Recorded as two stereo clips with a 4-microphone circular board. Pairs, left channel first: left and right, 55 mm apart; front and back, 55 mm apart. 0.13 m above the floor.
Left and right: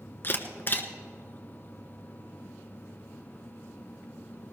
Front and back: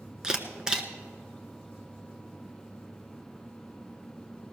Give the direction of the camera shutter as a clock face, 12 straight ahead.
8 o'clock.